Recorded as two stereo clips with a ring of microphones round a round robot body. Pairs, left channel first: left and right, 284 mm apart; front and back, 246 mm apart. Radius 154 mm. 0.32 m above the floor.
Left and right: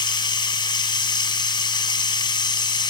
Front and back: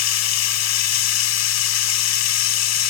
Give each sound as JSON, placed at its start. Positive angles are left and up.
{"t": 0.0, "sound": "running water", "azimuth_deg": 15, "distance_m": 0.9}